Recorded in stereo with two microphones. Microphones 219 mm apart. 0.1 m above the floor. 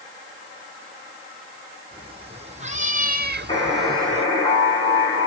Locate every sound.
1.9 s a cat meowing: 25° right (ahead or behind), 1.9 m
3.5 s a buzzer: 25° left (ahead or behind), 4 m